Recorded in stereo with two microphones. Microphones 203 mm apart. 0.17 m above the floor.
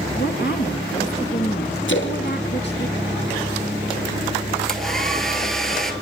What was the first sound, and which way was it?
A woman speaking, 60° left (ahead or behind).